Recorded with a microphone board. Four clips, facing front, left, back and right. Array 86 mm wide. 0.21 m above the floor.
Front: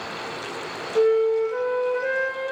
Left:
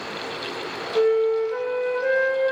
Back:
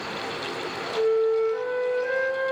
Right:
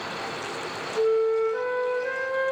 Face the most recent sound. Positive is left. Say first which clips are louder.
# left 3 dB, front 3 dB
turn(degrees=55)